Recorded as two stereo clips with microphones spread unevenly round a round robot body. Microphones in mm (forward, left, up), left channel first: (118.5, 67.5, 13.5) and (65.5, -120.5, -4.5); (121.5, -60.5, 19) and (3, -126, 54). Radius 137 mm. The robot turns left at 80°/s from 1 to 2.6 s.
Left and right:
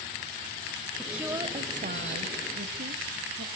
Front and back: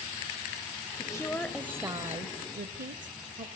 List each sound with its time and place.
1.0 s a woman speaking: 10° right, 1.5 m; by 3.5 s 140° right, 1.5 m